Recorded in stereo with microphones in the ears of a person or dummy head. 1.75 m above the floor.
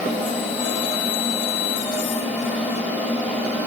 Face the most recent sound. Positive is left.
turn(degrees=-10)  # may be behind; listen again after turning